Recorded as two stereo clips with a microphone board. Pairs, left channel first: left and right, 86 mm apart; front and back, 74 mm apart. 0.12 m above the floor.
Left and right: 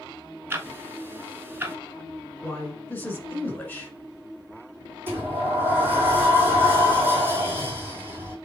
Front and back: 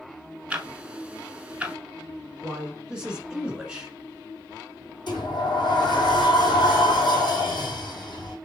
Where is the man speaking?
120° left, 1.2 m.